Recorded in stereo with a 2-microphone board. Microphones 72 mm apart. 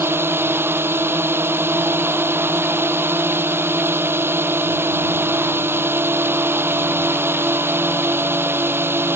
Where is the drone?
30° right (ahead or behind).